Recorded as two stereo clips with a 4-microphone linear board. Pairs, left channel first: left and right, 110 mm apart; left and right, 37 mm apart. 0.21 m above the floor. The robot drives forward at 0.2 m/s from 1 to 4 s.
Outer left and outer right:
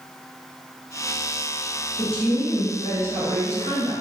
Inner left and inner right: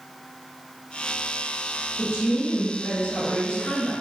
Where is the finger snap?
I don't hear a finger snap.